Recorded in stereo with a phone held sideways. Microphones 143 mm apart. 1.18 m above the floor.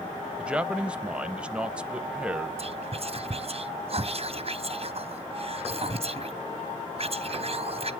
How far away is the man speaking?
About 0.6 m.